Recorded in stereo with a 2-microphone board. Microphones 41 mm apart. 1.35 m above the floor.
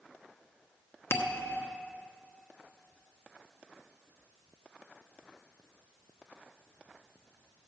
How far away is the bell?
About 1.0 m.